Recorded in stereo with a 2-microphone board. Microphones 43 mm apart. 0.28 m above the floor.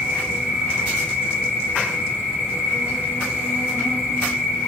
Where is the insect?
50° right (ahead or behind), 5 m.